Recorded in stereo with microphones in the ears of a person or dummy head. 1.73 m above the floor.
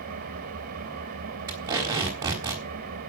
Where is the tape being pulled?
20° right (ahead or behind), 3.5 m.